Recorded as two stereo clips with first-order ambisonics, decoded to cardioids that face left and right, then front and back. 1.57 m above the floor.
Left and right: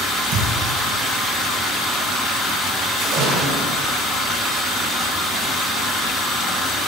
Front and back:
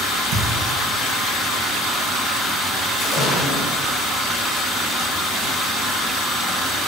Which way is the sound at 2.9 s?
55° right.